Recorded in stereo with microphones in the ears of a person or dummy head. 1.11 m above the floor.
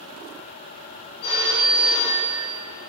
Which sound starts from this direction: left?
A phone ringing, at 1.2 s.